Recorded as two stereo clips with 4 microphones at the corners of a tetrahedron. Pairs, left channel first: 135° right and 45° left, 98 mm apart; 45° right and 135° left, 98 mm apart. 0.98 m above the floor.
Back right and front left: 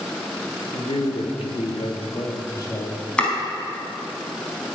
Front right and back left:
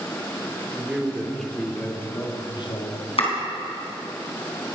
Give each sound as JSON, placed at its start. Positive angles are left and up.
{"t": 0.7, "sound": "a man speaking", "azimuth_deg": -145, "distance_m": 2.5}
{"t": 3.2, "sound": "chopping", "azimuth_deg": -55, "distance_m": 3.5}